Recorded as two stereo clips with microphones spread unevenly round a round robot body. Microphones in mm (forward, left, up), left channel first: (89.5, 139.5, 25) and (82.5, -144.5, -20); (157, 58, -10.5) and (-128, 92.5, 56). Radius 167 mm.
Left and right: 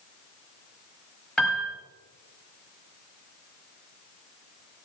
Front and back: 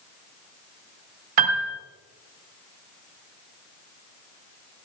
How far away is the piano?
About 2.0 m.